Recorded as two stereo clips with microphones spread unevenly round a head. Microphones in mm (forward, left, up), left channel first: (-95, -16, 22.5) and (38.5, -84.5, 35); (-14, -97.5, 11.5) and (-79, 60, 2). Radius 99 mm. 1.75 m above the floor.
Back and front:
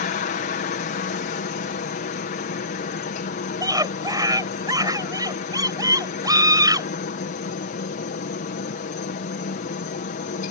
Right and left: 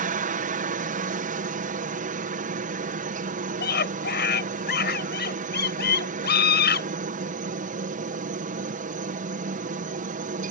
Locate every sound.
0.0 s a helicopter: 140° left
3.6 s a scream: 90° right